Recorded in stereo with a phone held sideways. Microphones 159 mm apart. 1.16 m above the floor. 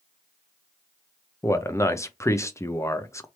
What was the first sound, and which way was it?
A man speaking, 20° left (ahead or behind).